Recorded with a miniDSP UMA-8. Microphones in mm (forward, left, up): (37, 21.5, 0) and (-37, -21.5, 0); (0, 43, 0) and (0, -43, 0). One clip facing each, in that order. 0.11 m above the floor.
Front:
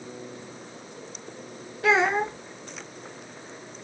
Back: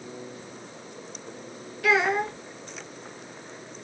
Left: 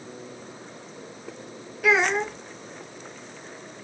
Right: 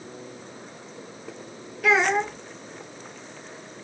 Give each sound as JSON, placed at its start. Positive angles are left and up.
{"t": 1.8, "sound": "a child speaking", "azimuth_deg": 5, "distance_m": 0.8}